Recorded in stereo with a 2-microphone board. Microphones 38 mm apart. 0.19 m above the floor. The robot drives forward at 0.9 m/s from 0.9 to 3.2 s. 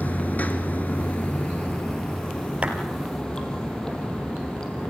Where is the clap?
30° right (ahead or behind), 3 m; by 2.8 s 35° right (ahead or behind), 2.5 m.